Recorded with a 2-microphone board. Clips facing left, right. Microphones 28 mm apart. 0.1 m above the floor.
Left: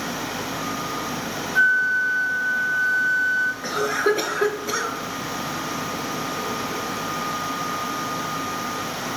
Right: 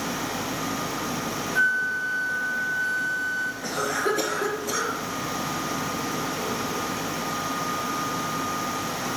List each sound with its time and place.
1.6 s a flute: 15° left (ahead or behind), 0.6 m
3.6 s a cough: 30° left (ahead or behind), 1.4 m